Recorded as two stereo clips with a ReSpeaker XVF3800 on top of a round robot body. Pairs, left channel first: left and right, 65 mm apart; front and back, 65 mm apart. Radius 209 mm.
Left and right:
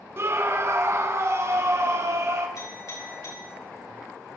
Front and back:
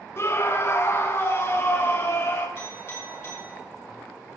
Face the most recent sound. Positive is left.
turn(degrees=55)